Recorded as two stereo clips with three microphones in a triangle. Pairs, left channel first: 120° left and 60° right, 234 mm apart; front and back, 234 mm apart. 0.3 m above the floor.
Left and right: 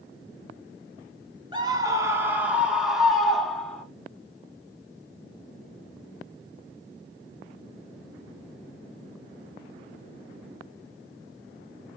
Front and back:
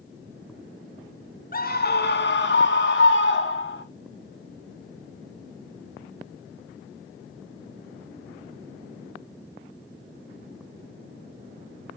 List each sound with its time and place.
1.5 s a scream: 5° right, 1.0 m; by 3.9 s 35° left, 2 m